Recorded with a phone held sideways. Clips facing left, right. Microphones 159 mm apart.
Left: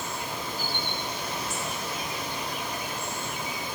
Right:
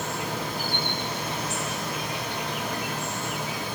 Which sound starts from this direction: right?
An insect, at 0.0 s.